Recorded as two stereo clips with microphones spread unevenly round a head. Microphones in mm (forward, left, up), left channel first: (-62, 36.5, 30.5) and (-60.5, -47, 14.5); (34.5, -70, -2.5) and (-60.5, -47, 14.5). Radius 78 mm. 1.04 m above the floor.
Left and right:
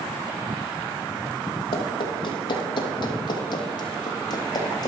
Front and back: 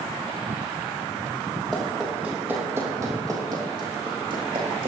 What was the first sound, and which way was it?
Running footsteps, 80° left.